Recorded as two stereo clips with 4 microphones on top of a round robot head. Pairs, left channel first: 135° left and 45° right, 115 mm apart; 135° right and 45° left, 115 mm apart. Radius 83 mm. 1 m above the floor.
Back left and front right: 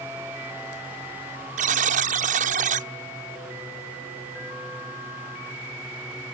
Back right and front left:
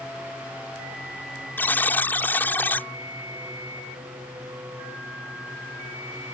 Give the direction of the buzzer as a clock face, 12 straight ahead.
2 o'clock.